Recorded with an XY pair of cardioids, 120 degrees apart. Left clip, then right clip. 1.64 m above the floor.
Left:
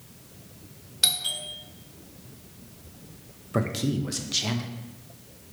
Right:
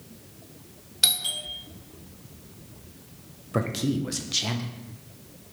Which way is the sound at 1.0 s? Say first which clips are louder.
Right 1 dB; 10° right.